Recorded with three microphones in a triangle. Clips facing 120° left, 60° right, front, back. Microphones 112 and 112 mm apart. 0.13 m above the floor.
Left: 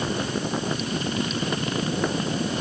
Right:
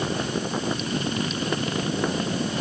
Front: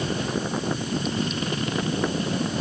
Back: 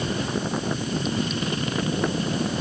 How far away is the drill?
No drill in this recording.